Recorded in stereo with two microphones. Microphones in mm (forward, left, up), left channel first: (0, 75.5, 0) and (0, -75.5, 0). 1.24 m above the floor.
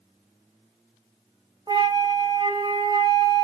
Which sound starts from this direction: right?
A flute, at 1.7 s.